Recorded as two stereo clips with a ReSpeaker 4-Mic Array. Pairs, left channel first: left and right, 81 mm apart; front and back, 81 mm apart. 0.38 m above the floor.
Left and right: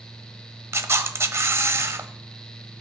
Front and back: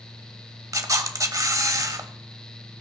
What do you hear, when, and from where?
0.7 s a camera shutter: 140° right, 1.0 m